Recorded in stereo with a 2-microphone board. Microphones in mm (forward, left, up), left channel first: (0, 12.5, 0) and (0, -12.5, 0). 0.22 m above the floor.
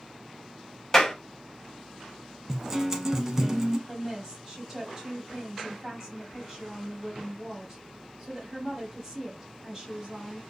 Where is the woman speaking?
20° right (ahead or behind), 1.0 m.